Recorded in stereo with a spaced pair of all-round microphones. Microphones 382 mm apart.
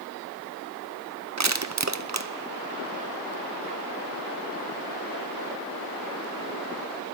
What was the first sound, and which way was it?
Crushing, 45° right (ahead or behind).